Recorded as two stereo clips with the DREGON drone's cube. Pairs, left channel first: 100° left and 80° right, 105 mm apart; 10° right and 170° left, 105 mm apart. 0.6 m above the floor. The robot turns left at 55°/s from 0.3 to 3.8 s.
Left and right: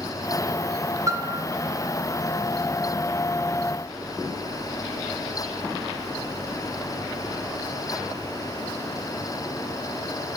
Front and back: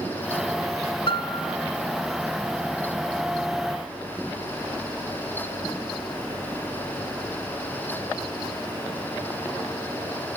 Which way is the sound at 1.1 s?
25° right.